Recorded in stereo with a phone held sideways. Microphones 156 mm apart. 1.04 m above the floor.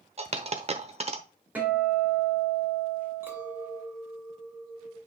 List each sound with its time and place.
0.2 s a dropped coin: 45° right (ahead or behind), 1.0 m
1.6 s a guitar: 10° right (ahead or behind), 3 m
3.2 s a clink: 15° right (ahead or behind), 3 m